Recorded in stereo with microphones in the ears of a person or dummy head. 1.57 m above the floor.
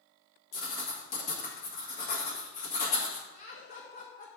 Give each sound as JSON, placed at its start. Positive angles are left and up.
{"t": 0.5, "sound": "writing", "side_deg": 40, "distance_m": 1.5}
{"t": 3.3, "sound": "laughter", "side_deg": 45, "distance_m": 1.4}